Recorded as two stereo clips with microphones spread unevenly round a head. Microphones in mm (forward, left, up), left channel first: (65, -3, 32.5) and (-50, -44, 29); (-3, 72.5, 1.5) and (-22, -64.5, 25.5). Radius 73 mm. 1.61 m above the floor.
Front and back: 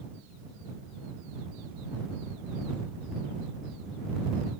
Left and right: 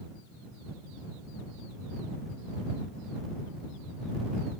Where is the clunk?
No clunk in this recording.